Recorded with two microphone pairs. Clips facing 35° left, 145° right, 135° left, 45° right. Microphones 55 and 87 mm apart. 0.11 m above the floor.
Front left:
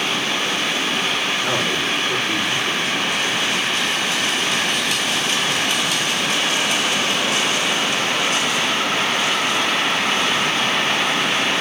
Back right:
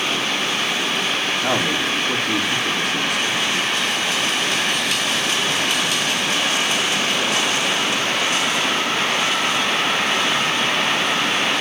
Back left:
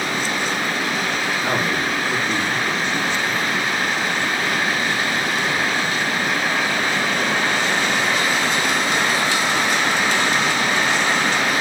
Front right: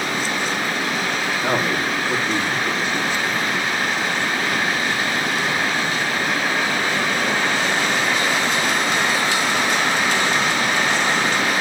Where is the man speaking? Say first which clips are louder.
Back right 1 dB, front right 2 dB; 130° right, 7 m.